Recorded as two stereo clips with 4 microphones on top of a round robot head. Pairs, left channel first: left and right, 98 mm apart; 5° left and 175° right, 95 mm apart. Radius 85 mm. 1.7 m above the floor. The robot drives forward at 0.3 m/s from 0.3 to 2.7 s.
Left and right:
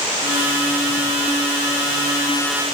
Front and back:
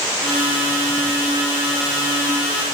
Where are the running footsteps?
I don't hear running footsteps.